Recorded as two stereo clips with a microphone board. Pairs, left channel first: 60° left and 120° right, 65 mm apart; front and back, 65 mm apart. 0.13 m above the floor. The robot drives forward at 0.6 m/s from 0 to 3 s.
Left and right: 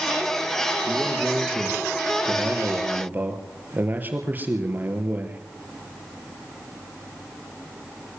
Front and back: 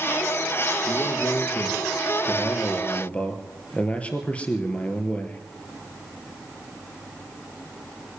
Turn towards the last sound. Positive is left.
turn(degrees=-65)